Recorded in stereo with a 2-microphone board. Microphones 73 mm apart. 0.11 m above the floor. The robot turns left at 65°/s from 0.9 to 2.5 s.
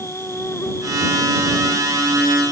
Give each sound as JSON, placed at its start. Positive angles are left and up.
{"t": 0.0, "sound": "an insect", "azimuth_deg": 140}